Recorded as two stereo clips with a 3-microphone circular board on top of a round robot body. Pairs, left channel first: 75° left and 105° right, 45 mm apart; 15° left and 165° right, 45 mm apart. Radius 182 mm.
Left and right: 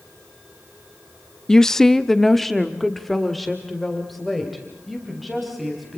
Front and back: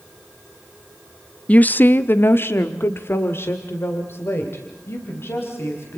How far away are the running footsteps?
No running footsteps in this recording.